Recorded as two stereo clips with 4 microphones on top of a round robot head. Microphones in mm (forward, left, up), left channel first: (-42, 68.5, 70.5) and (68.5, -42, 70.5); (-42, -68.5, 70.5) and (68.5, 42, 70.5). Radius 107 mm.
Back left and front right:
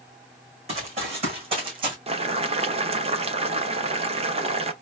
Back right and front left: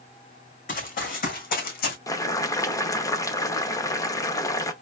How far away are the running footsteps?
About 2.5 m.